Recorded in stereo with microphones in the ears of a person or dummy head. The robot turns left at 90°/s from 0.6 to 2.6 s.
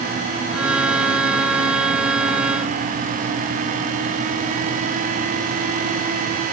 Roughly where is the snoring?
No snoring in this recording.